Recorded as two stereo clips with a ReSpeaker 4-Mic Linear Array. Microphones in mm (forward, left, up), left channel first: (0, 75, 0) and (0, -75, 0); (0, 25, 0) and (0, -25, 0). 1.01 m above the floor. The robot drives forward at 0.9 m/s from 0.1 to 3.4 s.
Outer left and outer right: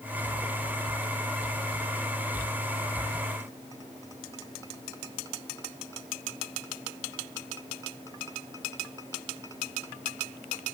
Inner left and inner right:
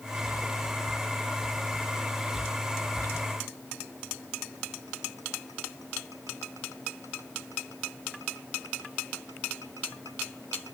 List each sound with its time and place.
Only background noise.